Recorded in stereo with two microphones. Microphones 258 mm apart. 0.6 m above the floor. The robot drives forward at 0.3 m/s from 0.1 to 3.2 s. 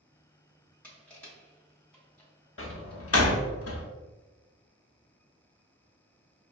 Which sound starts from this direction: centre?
Crushing, at 0.8 s.